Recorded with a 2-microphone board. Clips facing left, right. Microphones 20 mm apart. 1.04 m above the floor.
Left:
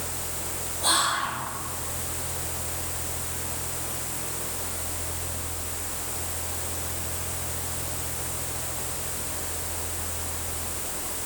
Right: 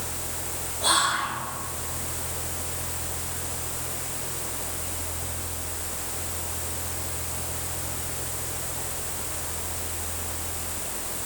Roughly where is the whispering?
Centre.